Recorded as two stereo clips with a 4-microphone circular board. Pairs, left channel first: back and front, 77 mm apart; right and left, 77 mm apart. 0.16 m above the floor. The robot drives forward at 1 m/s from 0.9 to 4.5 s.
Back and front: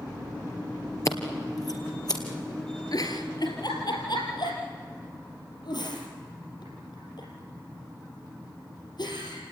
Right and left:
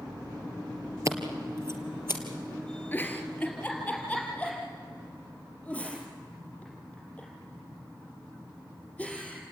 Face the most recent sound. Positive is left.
turn(degrees=-165)